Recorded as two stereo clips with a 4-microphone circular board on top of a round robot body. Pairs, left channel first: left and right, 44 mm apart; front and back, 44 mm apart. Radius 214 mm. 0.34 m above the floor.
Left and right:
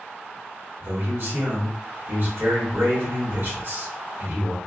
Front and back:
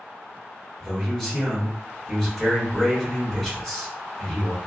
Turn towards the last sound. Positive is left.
turn(degrees=-80)